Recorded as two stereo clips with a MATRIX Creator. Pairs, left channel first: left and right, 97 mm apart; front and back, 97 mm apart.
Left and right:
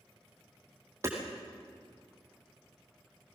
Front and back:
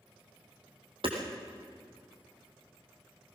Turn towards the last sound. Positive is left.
turn(degrees=-155)